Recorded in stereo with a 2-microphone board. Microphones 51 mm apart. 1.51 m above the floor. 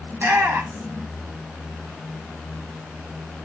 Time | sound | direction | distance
0.1 | a shout | 50° right (ahead or behind) | 1.1 m